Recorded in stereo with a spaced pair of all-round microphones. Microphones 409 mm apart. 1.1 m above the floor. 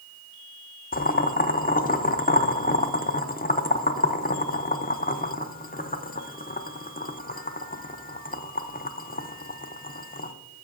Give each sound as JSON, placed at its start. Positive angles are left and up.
{"t": 0.9, "sound": "boiling", "side_deg": 20, "distance_m": 0.5}